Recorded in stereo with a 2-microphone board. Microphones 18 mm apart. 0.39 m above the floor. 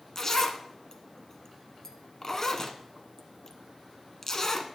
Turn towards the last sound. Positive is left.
turn(degrees=30)  # may be behind; listen again after turning